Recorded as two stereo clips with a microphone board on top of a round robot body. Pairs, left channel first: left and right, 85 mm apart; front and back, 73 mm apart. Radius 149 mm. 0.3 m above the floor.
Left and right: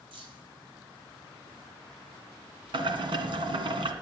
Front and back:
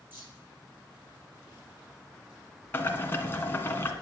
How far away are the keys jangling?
About 9.5 m.